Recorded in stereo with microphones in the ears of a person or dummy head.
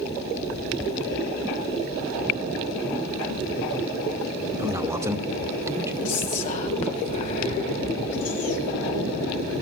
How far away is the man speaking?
About 2.0 m.